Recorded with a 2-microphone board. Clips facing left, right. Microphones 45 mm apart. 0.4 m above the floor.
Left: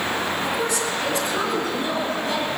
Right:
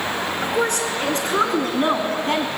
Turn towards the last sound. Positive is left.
turn(degrees=-50)  # may be behind; listen again after turning